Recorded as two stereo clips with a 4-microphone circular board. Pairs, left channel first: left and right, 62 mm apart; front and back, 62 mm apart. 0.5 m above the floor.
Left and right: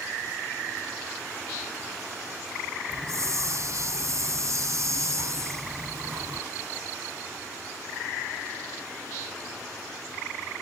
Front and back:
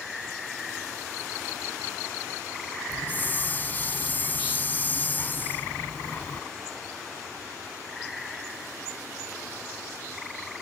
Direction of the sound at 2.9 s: 60° right.